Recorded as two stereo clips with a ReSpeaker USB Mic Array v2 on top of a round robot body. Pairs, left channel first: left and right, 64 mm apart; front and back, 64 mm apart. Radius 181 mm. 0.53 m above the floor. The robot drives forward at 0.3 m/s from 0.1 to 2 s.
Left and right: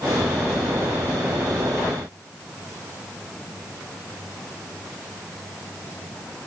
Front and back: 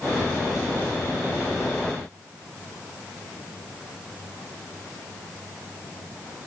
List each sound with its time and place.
Only background noise.